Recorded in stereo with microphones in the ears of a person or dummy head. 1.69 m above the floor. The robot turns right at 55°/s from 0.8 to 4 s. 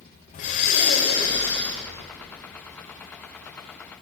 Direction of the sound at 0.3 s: 120° left.